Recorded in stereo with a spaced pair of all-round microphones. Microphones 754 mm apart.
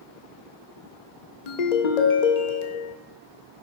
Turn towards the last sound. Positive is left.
turn(degrees=65)  # may be behind; listen again after turning